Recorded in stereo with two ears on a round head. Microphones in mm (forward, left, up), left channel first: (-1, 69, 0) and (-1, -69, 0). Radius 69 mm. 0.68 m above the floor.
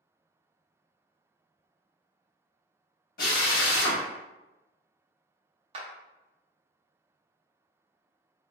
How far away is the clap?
About 0.5 m.